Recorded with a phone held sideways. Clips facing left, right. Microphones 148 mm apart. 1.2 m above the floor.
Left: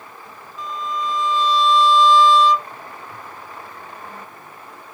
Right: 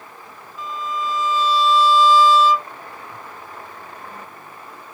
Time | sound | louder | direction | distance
0.6 | a violin | even | 5° right (ahead or behind) | ?